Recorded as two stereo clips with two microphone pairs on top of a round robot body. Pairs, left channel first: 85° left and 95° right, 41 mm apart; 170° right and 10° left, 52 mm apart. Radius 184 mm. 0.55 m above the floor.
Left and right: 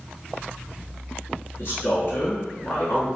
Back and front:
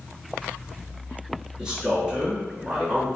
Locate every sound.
1.6 s a man speaking: 85° left, 1.8 m